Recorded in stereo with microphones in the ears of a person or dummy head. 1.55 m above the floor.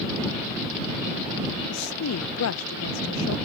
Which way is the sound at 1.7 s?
85° left.